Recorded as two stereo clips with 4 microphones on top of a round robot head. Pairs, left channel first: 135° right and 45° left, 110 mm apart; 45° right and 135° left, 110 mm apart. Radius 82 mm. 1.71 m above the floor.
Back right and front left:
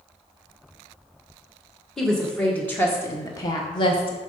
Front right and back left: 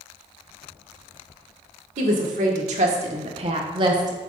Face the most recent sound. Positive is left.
turn(degrees=-170)